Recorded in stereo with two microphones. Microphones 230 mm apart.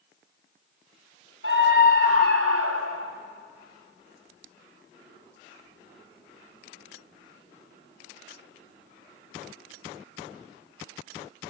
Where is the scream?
55° right (ahead or behind), 2 m; by 3.1 s 75° right (ahead or behind), 2.0 m.